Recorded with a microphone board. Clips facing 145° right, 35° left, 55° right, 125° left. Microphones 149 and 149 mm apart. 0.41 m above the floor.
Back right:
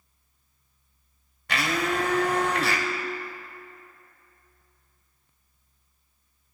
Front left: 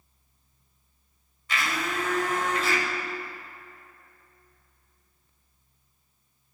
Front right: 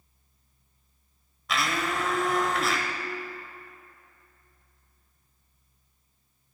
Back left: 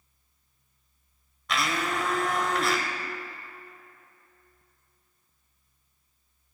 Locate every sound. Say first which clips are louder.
1.5 s a blender: back right 4 dB, even; 145° right, 1.0 m